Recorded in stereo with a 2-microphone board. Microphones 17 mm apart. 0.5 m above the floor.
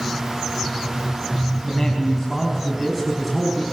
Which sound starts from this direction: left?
A man speaking, at 1.6 s.